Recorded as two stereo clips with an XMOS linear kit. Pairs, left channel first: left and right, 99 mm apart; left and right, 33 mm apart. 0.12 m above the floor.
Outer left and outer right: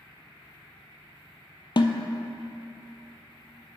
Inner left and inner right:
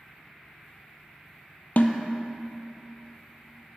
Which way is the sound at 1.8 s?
55° left (ahead or behind).